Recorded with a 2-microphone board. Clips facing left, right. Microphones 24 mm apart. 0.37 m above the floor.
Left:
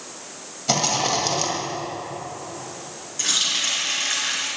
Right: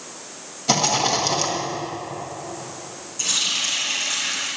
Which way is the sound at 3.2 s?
35° left (ahead or behind).